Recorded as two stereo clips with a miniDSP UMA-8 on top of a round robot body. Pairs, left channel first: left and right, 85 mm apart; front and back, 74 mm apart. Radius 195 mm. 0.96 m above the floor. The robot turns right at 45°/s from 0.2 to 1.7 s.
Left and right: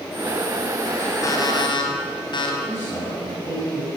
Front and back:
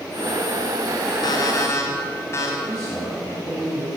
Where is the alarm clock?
35° left, 3.5 m; by 2.5 s 55° left, 3.5 m.